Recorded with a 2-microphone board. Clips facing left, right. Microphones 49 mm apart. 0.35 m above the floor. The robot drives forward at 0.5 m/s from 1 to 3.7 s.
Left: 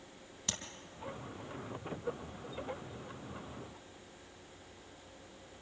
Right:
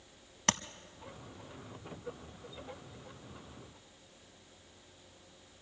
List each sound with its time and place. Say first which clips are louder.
0.5 s tapping: right 11 dB; 65° right (ahead or behind), 0.8 m